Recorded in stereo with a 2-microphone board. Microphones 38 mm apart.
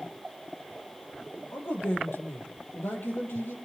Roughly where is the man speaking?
Left.